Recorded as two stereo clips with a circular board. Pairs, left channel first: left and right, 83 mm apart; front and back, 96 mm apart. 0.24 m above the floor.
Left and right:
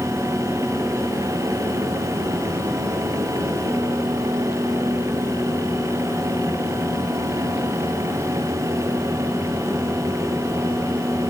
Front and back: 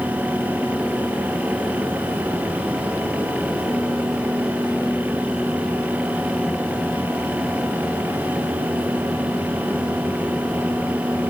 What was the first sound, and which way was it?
Only background noise.